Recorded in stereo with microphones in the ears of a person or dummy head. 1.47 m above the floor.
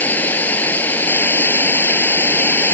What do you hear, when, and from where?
0.0 s running water: 10° left (ahead or behind)